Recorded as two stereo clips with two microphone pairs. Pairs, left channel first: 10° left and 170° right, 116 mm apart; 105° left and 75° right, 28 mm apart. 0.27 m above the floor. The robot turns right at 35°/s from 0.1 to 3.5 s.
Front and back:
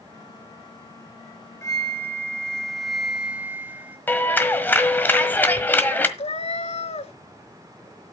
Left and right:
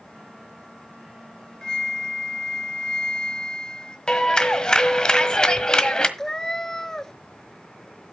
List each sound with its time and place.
1.6 s a flute: 60° left, 1.5 m; by 4.0 s 125° left, 1.5 m
4.1 s a clap: 75° left, 1.4 m
6.2 s a cat meowing: 35° left, 0.6 m